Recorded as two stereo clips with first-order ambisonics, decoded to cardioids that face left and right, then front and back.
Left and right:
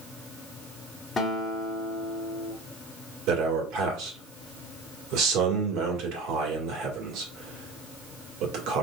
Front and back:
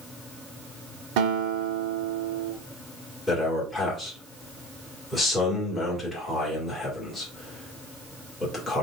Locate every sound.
1.2 s a guitar: 160° left, 1.0 m
3.3 s a man speaking: 80° right, 1.7 m